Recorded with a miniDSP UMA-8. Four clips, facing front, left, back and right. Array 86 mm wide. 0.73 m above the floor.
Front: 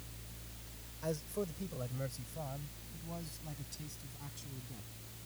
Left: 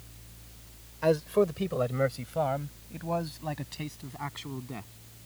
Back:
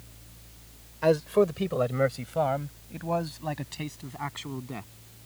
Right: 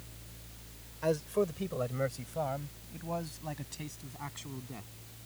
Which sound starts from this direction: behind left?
A man speaking, at 1.0 s.